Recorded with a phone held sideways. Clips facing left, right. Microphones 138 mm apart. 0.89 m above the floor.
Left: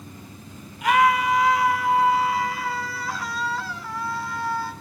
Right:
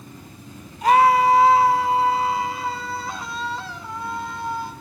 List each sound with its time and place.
0.8 s a scream: 35° right (ahead or behind), 2.5 m; by 4.7 s 20° right (ahead or behind), 5 m